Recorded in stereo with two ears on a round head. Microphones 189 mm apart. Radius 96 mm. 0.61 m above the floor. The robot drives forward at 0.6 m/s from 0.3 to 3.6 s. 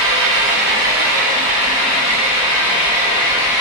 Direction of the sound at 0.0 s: 65° right (ahead or behind).